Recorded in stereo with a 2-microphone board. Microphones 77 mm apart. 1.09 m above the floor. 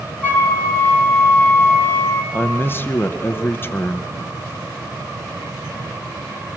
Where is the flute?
20° left (ahead or behind), 4 m.